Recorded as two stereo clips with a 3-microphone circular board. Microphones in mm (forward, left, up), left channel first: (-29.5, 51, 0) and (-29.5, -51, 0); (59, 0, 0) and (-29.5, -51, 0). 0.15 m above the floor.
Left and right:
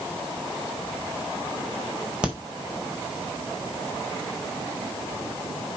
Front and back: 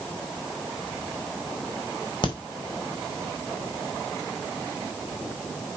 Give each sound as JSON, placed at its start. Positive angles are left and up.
{"t": 2.2, "sound": "a crack", "azimuth_deg": -10, "distance_m": 5.0}